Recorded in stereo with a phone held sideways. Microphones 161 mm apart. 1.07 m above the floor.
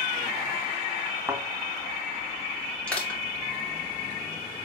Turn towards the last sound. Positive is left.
turn(degrees=5)  # may be behind; listen again after turning